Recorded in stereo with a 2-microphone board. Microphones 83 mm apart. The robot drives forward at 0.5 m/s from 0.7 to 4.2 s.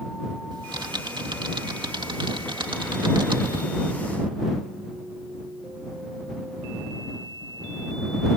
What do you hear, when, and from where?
0.5 s typing on a keyboard: 65° right (ahead or behind); by 3.7 s 70° right (ahead or behind)